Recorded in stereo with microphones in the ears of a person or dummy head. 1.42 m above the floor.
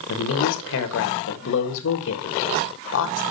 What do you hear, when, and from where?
0.1 s a woman speaking: 75° left (ahead or behind), 1.8 m